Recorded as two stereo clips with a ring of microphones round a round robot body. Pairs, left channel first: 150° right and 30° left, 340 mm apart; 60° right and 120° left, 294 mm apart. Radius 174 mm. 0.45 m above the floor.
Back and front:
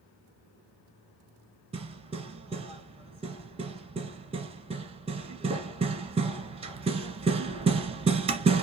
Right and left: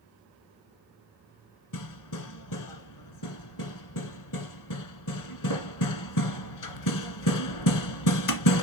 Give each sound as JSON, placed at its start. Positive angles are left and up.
{"t": 1.7, "sound": "hammering", "azimuth_deg": -45, "distance_m": 1.5}